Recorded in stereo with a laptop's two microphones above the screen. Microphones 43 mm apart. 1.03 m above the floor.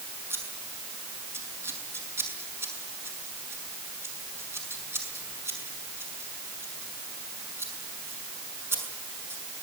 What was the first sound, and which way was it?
Scissors, 85° right.